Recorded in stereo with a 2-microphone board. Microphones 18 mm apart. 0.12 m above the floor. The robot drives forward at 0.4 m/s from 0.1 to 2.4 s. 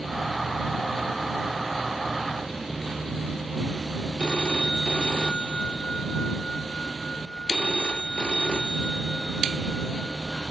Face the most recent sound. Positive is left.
turn(degrees=60)  # may be behind; listen again after turning